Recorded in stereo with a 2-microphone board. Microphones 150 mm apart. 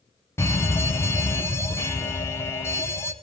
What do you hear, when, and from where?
0.4 s a fire alarm: 15° left (ahead or behind), 1.9 m